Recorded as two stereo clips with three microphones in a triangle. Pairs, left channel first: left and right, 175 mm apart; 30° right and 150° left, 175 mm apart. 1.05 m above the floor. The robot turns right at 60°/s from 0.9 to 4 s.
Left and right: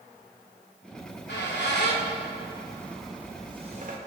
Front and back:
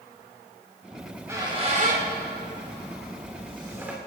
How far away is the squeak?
About 2.5 m.